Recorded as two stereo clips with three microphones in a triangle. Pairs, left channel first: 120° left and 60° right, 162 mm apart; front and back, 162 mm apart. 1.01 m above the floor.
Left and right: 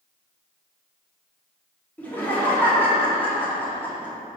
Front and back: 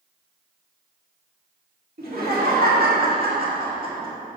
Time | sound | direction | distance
2.0 | laughter | 160° right | 1.7 m